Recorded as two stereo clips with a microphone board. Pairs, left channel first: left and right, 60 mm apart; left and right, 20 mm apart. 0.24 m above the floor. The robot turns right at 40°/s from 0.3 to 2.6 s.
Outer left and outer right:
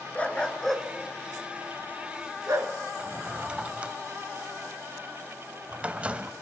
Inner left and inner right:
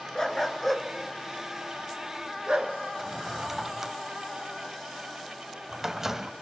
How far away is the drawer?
About 0.5 m.